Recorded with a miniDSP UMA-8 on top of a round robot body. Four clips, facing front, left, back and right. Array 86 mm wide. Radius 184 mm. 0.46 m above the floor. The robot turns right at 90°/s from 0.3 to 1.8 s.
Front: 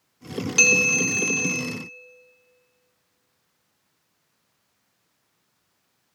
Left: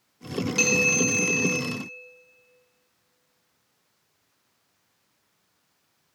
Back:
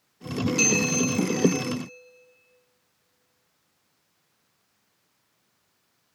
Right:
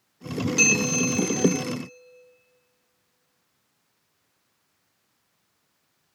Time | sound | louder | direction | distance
0.6 | a bell | left 1 dB, front 3 dB | 5° left | 1.6 m